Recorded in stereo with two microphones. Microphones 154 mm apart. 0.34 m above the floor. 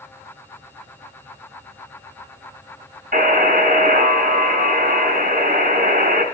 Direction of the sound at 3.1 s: 60° right (ahead or behind).